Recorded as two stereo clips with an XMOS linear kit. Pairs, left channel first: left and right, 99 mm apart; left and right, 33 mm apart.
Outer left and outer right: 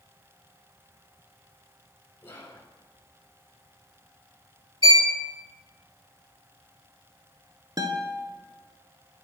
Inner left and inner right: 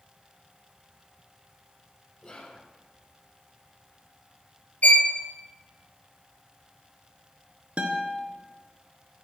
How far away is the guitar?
About 1.2 m.